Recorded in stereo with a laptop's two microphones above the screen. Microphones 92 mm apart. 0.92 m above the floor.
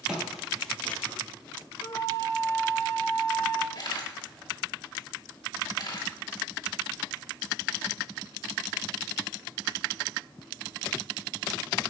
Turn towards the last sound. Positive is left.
turn(degrees=50)  # may be behind; listen again after turning